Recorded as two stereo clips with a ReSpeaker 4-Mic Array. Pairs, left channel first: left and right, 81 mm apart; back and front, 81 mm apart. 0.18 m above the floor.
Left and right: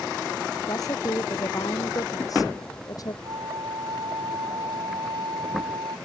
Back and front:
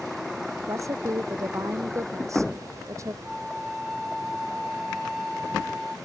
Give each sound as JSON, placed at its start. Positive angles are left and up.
{"t": 0.7, "sound": "a woman speaking", "azimuth_deg": 50}
{"t": 3.2, "sound": "a flute", "azimuth_deg": -90}